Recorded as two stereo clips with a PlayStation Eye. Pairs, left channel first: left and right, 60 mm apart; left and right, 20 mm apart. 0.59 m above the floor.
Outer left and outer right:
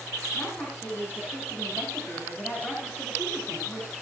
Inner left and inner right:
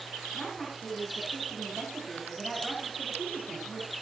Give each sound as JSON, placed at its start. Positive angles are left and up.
{"t": 0.3, "sound": "a woman speaking", "side_deg": 35, "distance_m": 9.5}